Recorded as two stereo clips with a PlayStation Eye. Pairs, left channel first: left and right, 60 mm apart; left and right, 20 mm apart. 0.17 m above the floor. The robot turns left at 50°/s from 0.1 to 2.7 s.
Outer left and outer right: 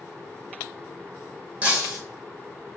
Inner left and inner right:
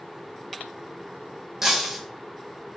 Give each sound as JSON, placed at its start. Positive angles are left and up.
{"t": 1.6, "sound": "breaking glass", "side_deg": -25, "distance_m": 1.6}